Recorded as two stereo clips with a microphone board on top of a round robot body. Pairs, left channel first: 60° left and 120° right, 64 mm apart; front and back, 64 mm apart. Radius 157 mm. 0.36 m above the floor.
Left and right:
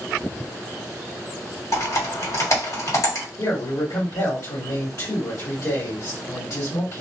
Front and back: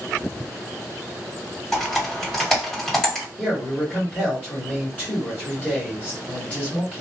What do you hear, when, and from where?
1.7 s typing on a keyboard: 85° left, 1.9 m
3.4 s a man speaking: 65° left, 1.8 m